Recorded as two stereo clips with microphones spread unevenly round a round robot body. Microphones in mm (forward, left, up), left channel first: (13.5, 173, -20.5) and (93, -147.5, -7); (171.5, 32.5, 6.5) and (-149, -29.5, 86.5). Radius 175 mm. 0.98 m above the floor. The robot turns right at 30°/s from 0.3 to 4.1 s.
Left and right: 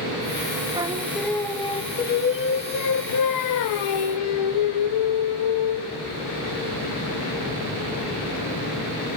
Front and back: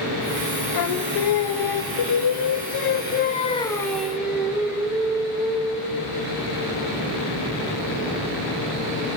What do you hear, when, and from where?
0.7 s singing: straight ahead, 0.9 m; by 6.0 s 100° left, 0.9 m